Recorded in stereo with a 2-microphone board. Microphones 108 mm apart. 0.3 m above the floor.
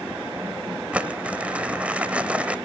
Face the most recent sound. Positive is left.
turn(degrees=-10)  # may be behind; listen again after turning